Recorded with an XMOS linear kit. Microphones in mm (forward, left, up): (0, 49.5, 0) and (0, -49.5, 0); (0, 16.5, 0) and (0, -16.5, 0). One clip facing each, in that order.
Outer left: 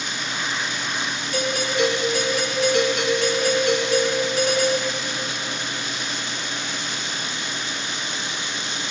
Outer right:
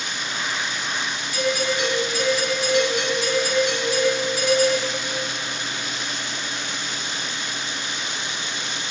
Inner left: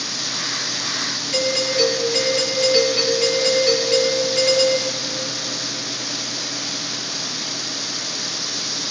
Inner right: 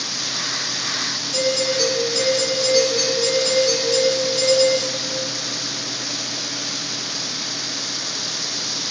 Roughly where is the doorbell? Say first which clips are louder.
Even, even; left.